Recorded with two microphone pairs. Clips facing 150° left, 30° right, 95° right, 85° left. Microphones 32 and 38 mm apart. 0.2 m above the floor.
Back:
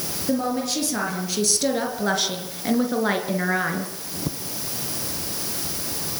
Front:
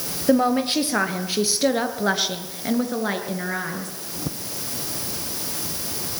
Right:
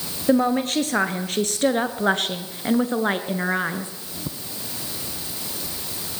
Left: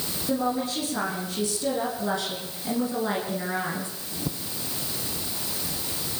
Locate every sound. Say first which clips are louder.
0.3 s a woman speaking: front 6 dB, right 7 dB; 75° right, 4 m; by 3.9 s 145° right, 3 m